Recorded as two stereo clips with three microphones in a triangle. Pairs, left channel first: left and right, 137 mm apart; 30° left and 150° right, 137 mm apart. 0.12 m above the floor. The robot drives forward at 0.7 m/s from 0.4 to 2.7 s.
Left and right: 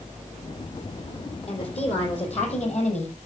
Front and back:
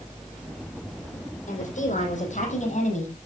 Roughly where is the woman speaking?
Ahead left.